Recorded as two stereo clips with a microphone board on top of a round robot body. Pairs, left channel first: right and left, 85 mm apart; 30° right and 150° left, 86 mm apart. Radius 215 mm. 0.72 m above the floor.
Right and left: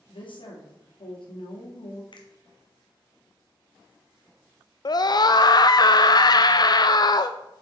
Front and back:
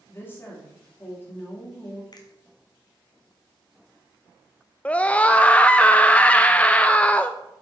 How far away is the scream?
About 0.5 m.